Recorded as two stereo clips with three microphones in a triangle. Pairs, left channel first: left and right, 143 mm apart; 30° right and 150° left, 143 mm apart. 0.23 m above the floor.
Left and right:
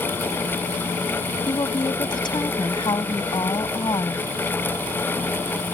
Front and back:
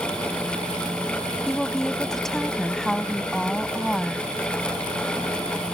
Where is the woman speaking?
55° left.